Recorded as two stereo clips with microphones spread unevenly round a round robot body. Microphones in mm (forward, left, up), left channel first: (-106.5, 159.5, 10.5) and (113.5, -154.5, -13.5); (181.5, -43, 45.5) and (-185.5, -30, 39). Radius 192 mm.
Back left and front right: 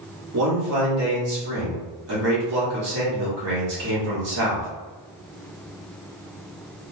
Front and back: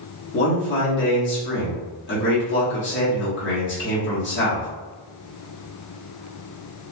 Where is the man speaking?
45° right, 1.4 m.